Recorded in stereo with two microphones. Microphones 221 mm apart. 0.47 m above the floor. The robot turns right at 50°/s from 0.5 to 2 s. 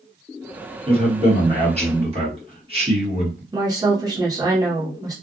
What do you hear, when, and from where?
0.9 s a man speaking: 25° right (ahead or behind), 1.4 m
3.5 s a woman speaking: 15° right (ahead or behind), 1.0 m